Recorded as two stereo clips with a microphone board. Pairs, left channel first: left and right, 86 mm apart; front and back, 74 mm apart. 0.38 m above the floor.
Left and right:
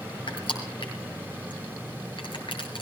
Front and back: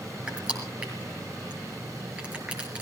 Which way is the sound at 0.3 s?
105° left.